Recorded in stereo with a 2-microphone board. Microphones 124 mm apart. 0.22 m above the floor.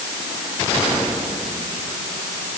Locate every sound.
Only background noise.